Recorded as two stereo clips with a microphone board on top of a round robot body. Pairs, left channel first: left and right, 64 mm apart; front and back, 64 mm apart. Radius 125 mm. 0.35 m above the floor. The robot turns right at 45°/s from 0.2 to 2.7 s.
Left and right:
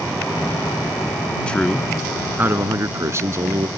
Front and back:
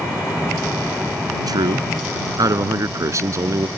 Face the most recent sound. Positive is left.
turn(degrees=-140)